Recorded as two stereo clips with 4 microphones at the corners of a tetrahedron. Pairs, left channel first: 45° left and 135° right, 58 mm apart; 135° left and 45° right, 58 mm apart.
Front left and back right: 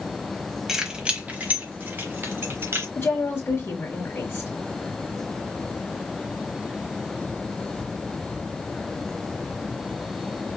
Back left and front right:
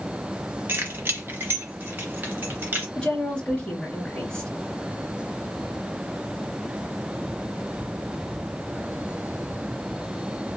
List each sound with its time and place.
0.7 s keys jangling: 60° right, 1.1 m; by 2.9 s 100° right, 2.5 m
3.0 s a woman speaking: 75° left, 1.3 m